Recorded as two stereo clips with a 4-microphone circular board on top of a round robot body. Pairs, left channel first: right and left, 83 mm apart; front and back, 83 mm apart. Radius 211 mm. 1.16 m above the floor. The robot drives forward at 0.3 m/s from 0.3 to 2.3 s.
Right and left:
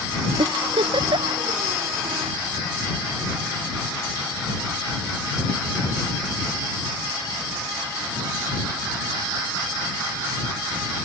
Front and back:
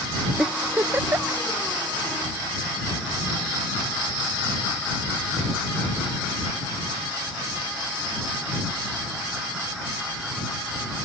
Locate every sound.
0.4 s a giggle: 105° left; by 1.4 s 120° left